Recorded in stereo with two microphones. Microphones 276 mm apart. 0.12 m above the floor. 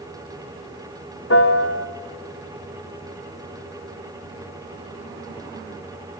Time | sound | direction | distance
1.3 | a piano | 55° left (ahead or behind) | 1.2 m